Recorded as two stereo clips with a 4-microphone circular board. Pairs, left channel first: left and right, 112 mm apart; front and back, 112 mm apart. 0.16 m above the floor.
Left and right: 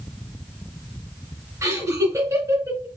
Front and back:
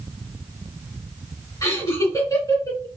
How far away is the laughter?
About 2.5 m.